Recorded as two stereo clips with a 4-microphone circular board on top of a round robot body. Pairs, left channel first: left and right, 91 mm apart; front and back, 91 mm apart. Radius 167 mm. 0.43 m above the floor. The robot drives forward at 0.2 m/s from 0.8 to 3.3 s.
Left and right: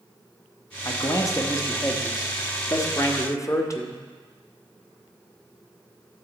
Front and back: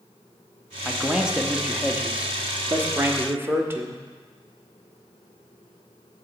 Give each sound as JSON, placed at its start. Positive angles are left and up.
{"t": 0.8, "sound": "a man speaking", "azimuth_deg": 100, "distance_m": 1.4}